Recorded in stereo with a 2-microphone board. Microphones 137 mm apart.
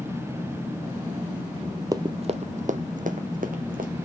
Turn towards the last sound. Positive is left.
turn(degrees=-85)